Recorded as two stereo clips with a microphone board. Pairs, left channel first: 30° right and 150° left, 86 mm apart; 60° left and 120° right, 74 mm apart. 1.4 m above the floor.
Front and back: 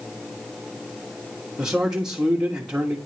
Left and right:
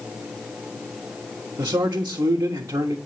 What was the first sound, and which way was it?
A man speaking, 130° right.